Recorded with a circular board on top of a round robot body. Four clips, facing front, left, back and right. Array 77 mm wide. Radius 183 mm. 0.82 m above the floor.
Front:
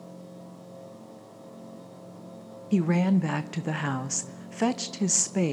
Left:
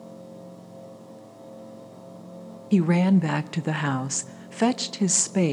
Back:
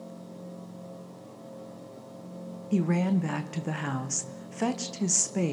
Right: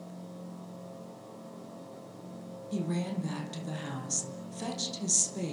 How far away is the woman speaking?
About 1.3 m.